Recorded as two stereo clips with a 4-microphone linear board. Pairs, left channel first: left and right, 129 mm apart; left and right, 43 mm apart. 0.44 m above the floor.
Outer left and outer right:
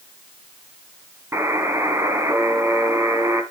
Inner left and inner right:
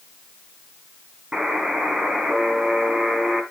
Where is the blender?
No blender in this recording.